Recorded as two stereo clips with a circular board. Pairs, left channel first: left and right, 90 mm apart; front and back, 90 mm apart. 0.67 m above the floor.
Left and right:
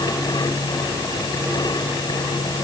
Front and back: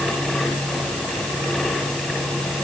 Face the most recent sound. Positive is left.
No sound to turn to.